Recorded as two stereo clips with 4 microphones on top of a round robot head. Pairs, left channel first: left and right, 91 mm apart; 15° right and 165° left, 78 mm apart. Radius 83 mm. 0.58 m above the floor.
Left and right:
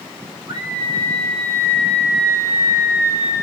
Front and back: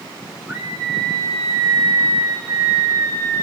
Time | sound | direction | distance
0.5 | a scream | 125° right | 2.5 m